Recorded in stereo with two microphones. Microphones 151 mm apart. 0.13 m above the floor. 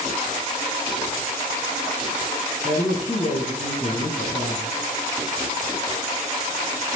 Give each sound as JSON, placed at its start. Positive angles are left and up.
{"t": 2.6, "sound": "a woman speaking", "side_deg": 45, "distance_m": 3.0}